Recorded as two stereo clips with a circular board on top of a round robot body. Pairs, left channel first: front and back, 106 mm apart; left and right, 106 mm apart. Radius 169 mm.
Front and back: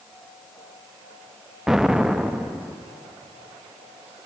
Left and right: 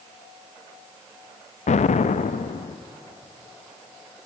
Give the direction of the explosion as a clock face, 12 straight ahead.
9 o'clock.